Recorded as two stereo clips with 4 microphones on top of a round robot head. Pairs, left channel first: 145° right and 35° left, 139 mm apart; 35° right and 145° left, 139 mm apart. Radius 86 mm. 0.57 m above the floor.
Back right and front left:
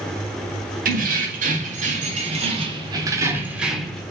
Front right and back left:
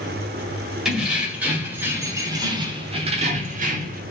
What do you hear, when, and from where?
0.8 s keys jangling: 55° left, 1.8 m; by 4.0 s 130° left, 1.1 m